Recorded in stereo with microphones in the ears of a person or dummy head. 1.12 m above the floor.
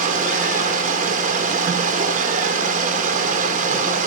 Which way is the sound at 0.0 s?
45° right (ahead or behind).